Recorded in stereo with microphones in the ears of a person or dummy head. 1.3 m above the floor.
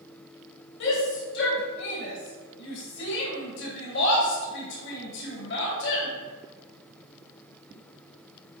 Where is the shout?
65° left (ahead or behind), 1.6 m.